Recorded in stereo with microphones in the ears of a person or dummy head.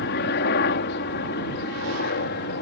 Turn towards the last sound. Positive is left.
turn(degrees=55)  # may be behind; listen again after turning